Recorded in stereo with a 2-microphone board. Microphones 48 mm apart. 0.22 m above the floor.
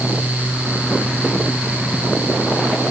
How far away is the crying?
No crying in this recording.